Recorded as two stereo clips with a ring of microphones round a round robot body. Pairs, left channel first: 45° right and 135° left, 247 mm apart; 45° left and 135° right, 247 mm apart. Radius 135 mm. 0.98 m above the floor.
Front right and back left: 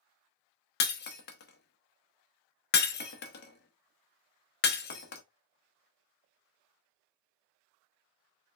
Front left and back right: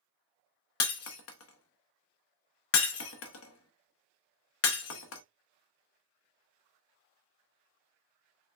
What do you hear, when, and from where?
0.8 s breaking glass: 5° left, 0.7 m